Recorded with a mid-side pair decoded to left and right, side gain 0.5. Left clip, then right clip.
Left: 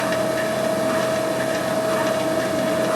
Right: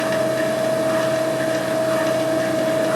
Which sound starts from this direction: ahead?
A machine running, at 0.0 s.